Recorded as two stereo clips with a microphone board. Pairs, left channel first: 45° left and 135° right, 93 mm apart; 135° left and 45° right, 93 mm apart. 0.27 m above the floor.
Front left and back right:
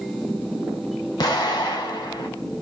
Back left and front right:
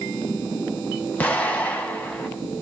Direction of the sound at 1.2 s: 70° left.